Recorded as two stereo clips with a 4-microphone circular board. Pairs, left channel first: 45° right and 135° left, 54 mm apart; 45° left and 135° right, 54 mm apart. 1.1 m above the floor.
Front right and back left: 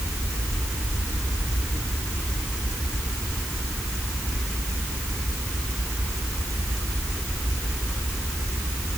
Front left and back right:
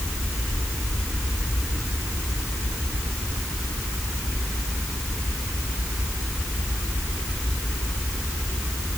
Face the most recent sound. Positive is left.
No sound to turn to.